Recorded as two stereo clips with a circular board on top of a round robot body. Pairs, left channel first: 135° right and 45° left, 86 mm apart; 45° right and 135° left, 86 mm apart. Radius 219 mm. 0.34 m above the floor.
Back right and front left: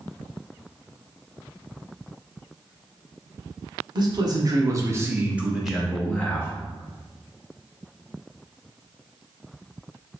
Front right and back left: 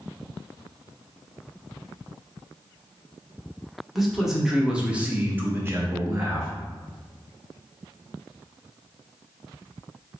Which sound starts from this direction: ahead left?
A man speaking, at 4.0 s.